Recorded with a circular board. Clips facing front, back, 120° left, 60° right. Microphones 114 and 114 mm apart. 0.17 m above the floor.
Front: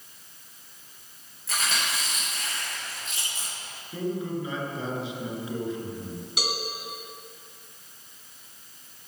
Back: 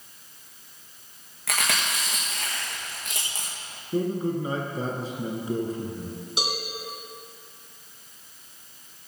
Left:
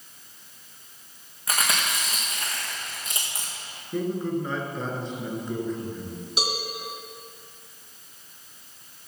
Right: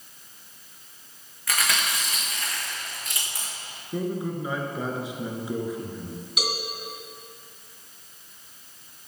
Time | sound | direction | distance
1.5 | chewing | 175° right | 3.5 m
3.9 | a man speaking | 140° right | 2 m
6.4 | a cowbell | 145° left | 1.9 m